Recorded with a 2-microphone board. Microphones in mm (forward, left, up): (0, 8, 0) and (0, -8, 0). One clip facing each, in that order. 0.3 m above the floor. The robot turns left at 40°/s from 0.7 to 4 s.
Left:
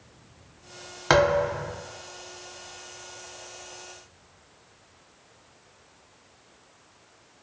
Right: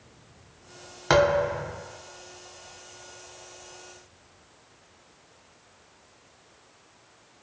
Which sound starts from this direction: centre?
A thud, at 1.1 s.